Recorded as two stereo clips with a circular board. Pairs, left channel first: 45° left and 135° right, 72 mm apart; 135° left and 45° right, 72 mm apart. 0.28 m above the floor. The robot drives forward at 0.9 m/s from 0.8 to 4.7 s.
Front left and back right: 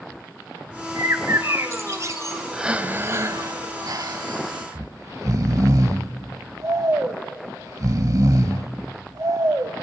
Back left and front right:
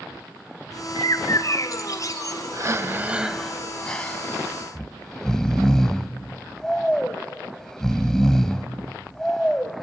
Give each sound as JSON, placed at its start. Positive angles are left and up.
{"t": 0.9, "sound": "a bird", "azimuth_deg": 170, "distance_m": 0.6}
{"t": 2.5, "sound": "breathing", "azimuth_deg": -55, "distance_m": 0.8}
{"t": 4.8, "sound": "snoring", "azimuth_deg": -145, "distance_m": 0.7}